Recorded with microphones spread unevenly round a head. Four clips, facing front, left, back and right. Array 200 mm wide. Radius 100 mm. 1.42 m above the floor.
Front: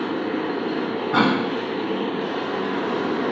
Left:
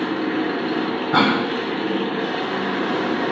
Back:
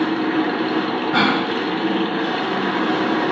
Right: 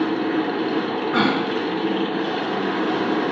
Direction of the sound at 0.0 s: Straight behind.